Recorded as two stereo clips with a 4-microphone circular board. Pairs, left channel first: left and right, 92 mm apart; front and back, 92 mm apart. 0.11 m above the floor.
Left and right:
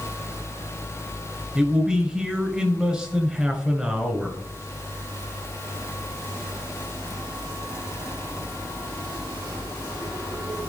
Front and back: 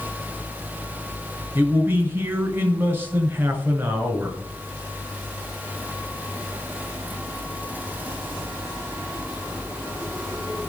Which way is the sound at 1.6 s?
155° right.